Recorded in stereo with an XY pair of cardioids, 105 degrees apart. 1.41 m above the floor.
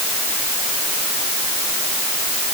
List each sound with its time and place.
Only background noise.